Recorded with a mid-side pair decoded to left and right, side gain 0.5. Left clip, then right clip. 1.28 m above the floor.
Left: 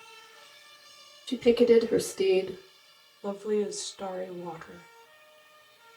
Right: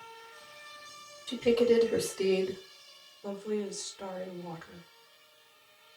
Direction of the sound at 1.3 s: 40° left.